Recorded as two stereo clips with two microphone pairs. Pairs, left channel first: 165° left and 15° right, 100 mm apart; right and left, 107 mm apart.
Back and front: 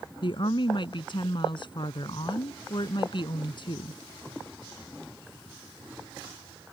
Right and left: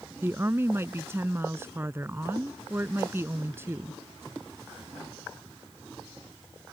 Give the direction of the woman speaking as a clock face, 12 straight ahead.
7 o'clock.